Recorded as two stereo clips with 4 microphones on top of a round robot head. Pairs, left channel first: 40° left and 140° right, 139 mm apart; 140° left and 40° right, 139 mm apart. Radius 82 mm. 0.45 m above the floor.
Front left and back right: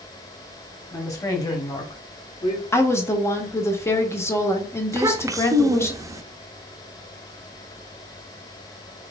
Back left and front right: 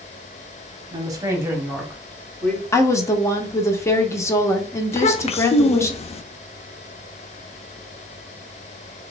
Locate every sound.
0.9 s a woman speaking: 15° right, 1.5 m; by 2.6 s 70° left, 1.6 m
2.7 s a woman speaking: 90° left, 0.9 m
4.9 s a child speaking: 160° left, 0.5 m